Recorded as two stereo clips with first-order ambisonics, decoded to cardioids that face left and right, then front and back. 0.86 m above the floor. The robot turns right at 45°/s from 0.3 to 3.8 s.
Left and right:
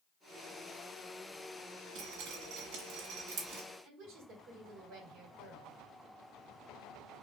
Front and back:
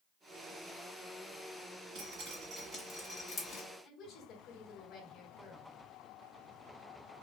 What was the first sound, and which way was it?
Dripping, 135° right.